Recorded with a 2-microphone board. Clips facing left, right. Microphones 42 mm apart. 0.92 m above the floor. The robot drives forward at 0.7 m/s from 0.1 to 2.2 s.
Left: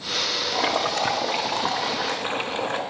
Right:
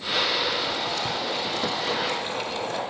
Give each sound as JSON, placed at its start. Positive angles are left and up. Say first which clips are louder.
{"t": 0.5, "sound": "boiling", "louder": "left 4 dB", "side_deg": 70, "distance_m": 0.8}